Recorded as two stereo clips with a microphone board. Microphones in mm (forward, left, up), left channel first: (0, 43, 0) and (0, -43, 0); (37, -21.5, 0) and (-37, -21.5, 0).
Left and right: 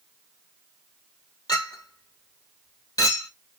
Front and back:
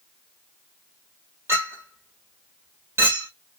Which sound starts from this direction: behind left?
A clink, at 1.5 s.